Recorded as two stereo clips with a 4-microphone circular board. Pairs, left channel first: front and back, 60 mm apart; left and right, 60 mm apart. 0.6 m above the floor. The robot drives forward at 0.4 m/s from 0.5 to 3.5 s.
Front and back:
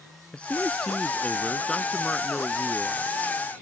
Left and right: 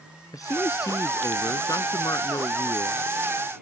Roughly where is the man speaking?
Left.